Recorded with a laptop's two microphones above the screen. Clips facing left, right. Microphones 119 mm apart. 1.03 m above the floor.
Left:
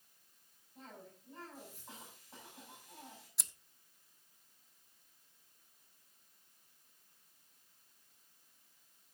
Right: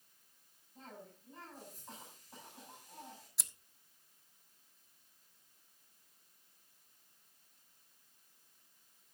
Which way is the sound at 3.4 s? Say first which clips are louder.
Even; centre (ahead or behind).